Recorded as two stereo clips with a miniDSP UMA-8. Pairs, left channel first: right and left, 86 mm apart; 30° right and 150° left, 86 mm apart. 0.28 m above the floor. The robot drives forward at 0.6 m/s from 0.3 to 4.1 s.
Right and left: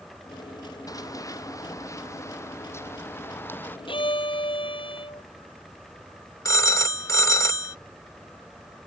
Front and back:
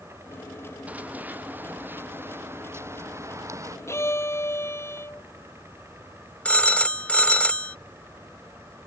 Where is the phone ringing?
95° right.